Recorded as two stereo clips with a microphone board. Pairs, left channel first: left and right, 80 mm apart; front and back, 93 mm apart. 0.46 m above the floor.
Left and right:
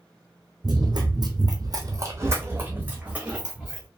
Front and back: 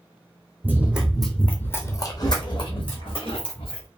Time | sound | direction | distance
0.6 | running footsteps | 110° right | 0.9 m